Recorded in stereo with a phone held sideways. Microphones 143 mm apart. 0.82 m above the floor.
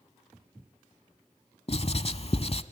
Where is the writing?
45° left (ahead or behind), 0.8 m.